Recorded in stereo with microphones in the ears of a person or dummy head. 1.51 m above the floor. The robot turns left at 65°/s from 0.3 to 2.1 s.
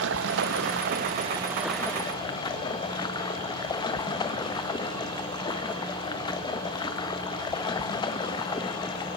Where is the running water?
85° right, 1.4 m; by 9.2 s 155° left, 1.4 m.